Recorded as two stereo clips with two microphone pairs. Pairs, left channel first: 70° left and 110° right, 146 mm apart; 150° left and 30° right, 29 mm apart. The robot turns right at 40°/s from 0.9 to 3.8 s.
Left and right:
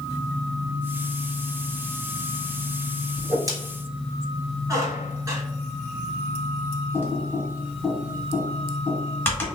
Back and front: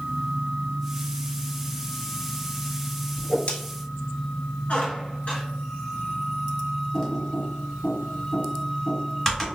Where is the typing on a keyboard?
100° left, 1.2 m.